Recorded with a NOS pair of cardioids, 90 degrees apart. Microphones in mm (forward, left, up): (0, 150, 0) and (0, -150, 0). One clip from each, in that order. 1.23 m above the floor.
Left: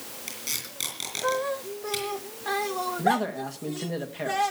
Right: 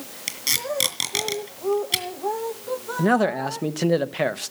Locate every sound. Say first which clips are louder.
0.3 s tape being pulled: right 10 dB; 60° right, 3.5 m
3.0 s a man speaking: right 6 dB; 55° right, 1.1 m